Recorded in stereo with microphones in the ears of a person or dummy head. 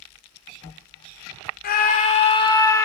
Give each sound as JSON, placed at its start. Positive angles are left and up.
{"t": 1.6, "sound": "a scream", "side_deg": 55, "distance_m": 1.5}